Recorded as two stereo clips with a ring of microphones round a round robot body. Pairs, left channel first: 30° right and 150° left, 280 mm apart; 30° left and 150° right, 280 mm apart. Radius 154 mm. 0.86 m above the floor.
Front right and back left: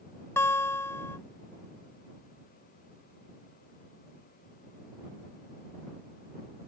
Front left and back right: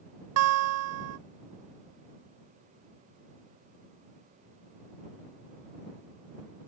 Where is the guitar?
110° right.